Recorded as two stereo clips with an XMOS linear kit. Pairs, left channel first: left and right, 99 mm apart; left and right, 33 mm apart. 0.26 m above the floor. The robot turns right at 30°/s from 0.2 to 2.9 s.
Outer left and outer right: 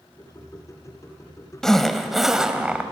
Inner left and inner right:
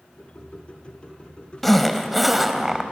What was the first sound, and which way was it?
A zipper, 5° left (ahead or behind).